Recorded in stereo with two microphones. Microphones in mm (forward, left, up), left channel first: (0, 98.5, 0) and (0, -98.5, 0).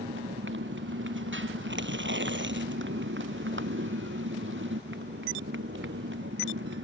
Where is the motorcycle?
75° right (ahead or behind).